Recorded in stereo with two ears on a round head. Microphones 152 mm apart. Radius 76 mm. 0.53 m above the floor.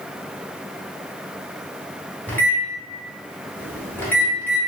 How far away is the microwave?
About 1.0 m.